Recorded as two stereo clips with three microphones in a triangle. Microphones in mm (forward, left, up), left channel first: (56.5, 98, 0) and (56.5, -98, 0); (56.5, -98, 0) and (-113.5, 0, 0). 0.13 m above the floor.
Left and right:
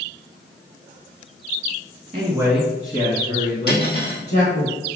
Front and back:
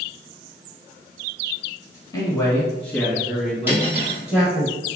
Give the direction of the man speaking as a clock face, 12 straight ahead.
3 o'clock.